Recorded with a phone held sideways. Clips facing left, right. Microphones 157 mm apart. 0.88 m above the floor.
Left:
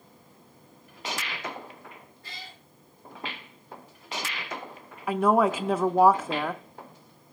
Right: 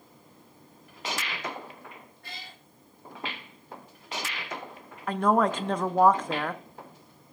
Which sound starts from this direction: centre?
A woman speaking, at 5.1 s.